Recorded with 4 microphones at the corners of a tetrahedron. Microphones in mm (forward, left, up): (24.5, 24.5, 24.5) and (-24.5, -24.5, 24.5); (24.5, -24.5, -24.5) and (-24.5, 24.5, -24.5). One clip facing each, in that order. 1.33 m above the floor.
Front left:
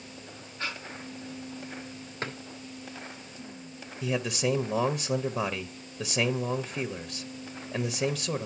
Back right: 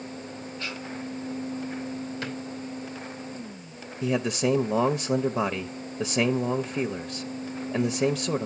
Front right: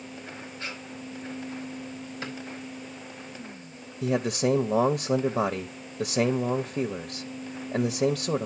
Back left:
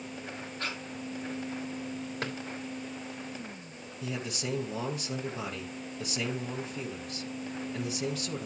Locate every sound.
0.6 s breathing: 100° left, 3.5 m
2.2 s a drawer: 100° left, 3 m
4.0 s a man speaking: 70° right, 0.7 m